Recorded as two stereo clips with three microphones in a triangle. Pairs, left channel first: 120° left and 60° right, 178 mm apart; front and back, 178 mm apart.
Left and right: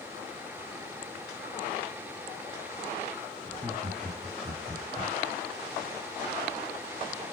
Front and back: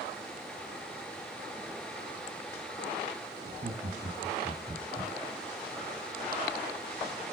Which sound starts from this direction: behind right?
Laughter, at 3.5 s.